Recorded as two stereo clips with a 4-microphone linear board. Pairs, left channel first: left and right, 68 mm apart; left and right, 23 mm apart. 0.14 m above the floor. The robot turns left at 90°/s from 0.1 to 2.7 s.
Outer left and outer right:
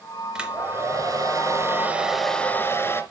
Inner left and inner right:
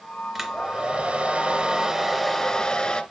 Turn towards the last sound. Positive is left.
turn(degrees=135)